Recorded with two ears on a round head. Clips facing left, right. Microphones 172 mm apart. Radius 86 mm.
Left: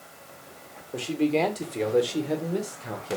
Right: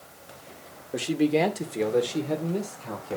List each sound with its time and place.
0.9 s a man speaking: 20° right (ahead or behind), 1.6 m; by 3.2 s 20° left (ahead or behind), 2.5 m